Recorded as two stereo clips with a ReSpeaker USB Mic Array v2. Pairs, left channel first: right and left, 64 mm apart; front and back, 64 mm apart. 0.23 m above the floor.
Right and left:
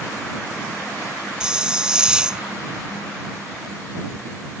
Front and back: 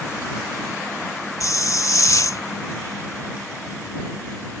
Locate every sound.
1.4 s a hiss: 15° left